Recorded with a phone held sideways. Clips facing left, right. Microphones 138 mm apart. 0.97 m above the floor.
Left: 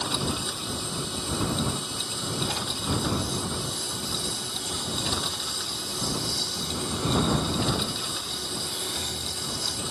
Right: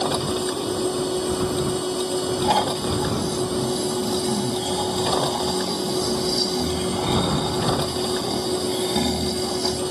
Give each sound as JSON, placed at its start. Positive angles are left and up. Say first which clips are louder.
{"t": 0.0, "sound": "a machine running", "louder": "right 8 dB", "side_deg": -65}
{"t": 2.4, "sound": "snoring", "louder": "right 11 dB", "side_deg": -85}